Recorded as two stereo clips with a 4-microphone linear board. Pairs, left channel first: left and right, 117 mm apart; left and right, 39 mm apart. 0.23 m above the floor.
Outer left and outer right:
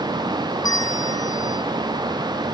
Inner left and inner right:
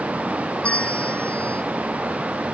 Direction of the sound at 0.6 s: 35° left (ahead or behind).